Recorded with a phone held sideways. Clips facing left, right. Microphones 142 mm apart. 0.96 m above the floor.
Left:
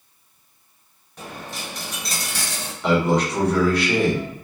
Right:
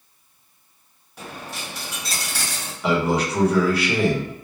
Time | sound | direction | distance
1.2 | a dropped coin | 5° right (ahead or behind) | 1.4 m
2.8 | a man speaking | 5° right (ahead or behind) | 1.1 m